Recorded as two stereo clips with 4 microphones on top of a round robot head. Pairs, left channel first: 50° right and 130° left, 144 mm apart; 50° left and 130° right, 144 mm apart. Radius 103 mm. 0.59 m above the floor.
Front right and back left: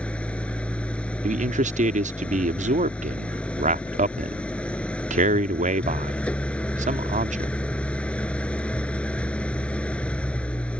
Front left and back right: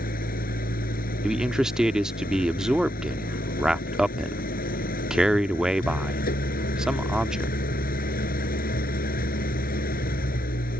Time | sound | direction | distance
0.0 | an engine running | 30° left | ?
1.2 | a man speaking | 145° left | ?